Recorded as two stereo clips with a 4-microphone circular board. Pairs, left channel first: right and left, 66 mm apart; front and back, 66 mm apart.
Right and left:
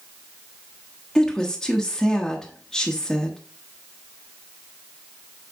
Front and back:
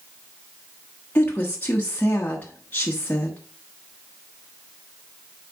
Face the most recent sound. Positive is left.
turn(degrees=-15)